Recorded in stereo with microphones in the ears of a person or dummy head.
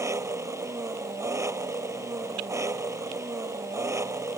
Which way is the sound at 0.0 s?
15° right (ahead or behind).